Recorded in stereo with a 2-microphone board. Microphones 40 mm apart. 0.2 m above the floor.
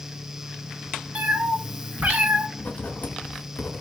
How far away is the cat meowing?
About 0.8 m.